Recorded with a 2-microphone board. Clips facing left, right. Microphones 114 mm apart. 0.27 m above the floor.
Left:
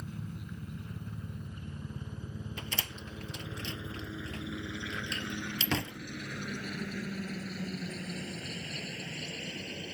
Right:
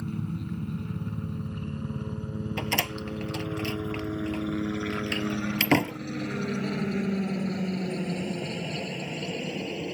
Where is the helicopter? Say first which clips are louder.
Right 10 dB; 60° right (ahead or behind); by 9.9 s 55° right (ahead or behind).